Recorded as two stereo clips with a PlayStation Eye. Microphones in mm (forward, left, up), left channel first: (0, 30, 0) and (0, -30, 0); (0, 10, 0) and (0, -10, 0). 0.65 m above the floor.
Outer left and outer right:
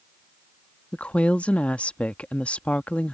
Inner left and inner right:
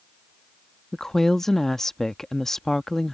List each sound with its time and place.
0.9 s a woman speaking: 20° left (ahead or behind)